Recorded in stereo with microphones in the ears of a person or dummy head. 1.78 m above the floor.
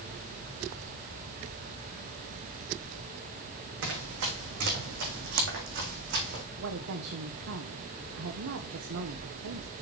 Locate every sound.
3.8 s running footsteps: 65° right (ahead or behind), 4.5 m; by 6.4 s 45° right (ahead or behind), 4 m
6.6 s a woman speaking: 65° right (ahead or behind), 1.2 m